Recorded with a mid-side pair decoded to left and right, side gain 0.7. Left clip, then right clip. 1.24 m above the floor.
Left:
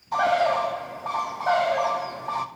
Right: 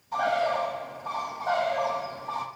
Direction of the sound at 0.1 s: 35° left.